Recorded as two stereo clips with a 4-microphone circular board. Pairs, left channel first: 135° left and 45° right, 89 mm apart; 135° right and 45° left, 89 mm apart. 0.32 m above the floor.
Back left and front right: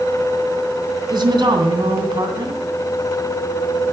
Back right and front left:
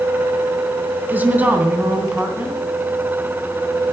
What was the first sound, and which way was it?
A woman speaking, 25° right.